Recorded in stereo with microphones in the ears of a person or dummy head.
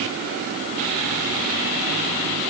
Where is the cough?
I don't hear a cough.